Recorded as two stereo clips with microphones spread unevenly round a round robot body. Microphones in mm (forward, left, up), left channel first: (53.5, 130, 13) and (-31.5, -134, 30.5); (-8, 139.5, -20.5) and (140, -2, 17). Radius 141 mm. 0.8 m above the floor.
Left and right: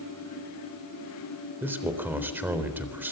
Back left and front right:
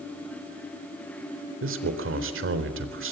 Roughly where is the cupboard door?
I don't hear a cupboard door.